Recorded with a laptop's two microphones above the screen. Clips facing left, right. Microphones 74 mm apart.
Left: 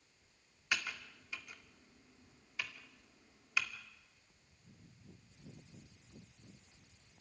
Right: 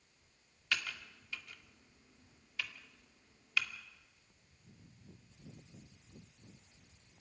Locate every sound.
0.7 s typing on a keyboard: 15° left (ahead or behind), 2 m